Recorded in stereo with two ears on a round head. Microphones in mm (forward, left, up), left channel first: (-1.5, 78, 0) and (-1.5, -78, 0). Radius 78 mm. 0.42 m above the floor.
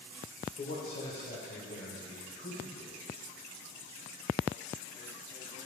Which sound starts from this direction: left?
A man speaking, at 0.6 s.